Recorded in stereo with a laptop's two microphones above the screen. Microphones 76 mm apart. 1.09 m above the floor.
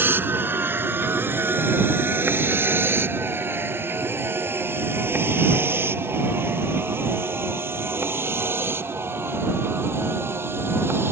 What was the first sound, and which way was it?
A vehicle, 30° right (ahead or behind).